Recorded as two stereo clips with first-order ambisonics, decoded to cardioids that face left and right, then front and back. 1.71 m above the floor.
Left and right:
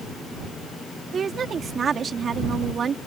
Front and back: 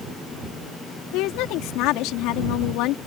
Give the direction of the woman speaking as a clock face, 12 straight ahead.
1 o'clock.